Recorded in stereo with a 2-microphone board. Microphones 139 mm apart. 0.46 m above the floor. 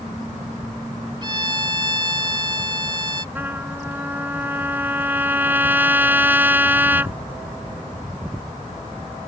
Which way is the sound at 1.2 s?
35° right (ahead or behind).